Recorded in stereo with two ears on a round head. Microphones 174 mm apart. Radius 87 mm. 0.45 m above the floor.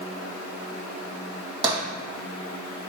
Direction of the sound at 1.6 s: 20° right (ahead or behind).